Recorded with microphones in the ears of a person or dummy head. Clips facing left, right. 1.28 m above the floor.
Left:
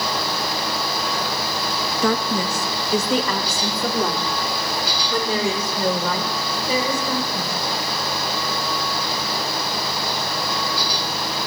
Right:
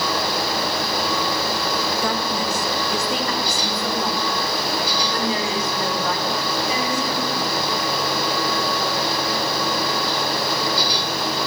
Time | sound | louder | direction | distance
2.0 | a woman speaking | left 2 dB | 65° left (ahead or behind) | 2 m